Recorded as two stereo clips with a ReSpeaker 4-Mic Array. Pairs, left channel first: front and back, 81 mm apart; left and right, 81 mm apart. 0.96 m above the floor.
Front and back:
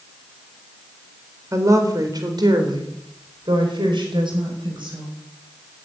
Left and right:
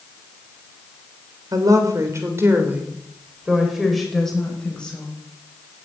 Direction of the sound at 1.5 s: 130° right.